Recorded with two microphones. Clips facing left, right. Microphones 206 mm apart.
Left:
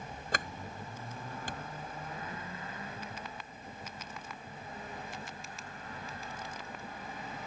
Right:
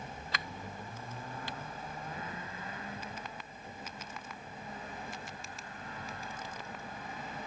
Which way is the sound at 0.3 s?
50° left (ahead or behind).